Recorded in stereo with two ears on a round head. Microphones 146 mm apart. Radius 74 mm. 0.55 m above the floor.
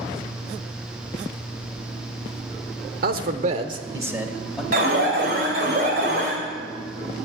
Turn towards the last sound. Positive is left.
turn(degrees=-60)  # may be behind; listen again after turning